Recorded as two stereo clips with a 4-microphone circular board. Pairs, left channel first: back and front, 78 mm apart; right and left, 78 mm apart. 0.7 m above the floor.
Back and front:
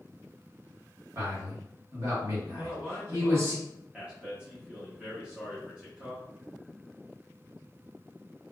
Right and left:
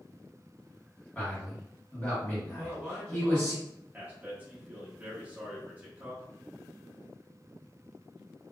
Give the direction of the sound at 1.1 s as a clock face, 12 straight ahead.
1 o'clock.